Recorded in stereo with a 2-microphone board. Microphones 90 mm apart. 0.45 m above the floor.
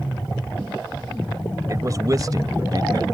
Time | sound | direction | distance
1.7 | a man speaking | 35° right (ahead or behind) | ?